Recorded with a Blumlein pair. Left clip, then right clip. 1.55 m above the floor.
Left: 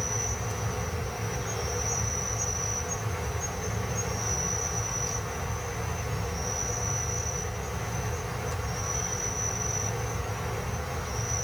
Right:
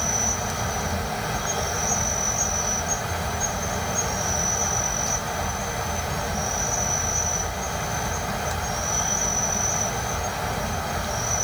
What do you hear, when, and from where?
0.0 s an insect: 45° right, 1.0 m